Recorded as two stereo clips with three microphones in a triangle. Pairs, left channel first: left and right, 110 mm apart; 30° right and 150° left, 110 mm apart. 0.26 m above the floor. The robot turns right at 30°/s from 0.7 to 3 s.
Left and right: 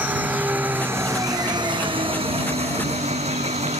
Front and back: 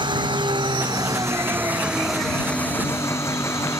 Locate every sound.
0.0 s an engine running: 165° right; by 3.8 s 95° right